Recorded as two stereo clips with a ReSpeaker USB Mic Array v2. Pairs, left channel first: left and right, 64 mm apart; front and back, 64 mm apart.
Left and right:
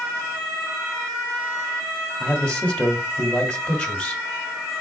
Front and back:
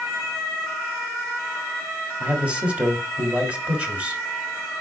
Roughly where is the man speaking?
Behind left.